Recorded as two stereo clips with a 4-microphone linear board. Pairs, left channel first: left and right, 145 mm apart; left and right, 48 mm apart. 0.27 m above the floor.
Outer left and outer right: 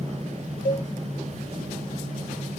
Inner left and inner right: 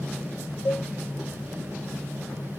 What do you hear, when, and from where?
0.7 s a cowbell: 60° left (ahead or behind), 0.9 m